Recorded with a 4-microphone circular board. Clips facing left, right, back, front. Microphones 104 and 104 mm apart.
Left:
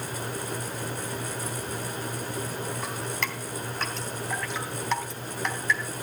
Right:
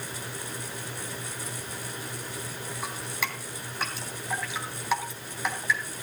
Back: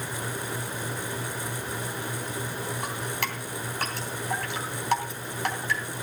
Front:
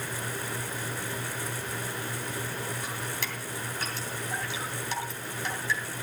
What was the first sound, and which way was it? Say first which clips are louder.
Dripping: left 2 dB, back 4 dB; 175° right.